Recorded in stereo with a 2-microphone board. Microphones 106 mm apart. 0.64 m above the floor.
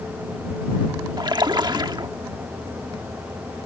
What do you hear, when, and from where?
1.2 s a splash: 45° right (ahead or behind)